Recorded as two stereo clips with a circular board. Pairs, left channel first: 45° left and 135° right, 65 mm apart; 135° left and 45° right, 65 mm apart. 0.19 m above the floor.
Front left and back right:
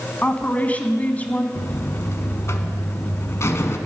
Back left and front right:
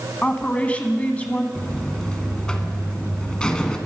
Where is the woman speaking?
85° left, 1.3 m.